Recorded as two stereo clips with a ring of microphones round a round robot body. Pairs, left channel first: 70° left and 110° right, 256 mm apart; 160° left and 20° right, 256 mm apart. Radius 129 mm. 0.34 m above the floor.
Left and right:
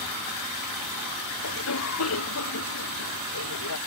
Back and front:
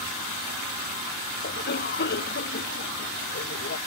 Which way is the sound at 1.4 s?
105° left.